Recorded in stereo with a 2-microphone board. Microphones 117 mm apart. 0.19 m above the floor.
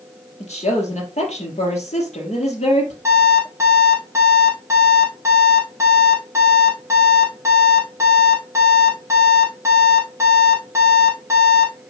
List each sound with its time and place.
0.4 s a woman speaking: 60° left (ahead or behind), 4 m
3.0 s an alarm clock: 20° right (ahead or behind), 4 m